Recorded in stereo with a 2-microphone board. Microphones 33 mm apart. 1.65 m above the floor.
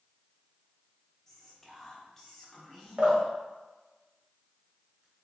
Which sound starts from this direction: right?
Dripping, at 3.0 s.